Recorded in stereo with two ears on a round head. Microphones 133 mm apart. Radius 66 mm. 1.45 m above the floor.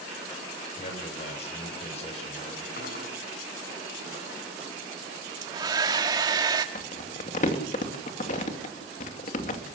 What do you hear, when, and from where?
0.8 s a man speaking: 45° left (ahead or behind), 8 m
2.8 s cutlery clinking: 65° left (ahead or behind), 8 m
5.4 s a hair dryer: 25° right (ahead or behind), 1.6 m
6.8 s crumpling: 50° left (ahead or behind), 2.5 m